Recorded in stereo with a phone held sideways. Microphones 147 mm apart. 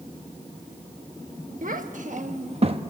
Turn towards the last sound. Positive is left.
turn(degrees=-35)  # may be behind; listen again after turning